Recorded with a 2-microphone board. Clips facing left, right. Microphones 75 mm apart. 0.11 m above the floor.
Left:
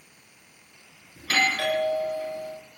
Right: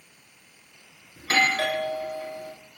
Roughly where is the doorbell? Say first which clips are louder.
Right 2 dB; right.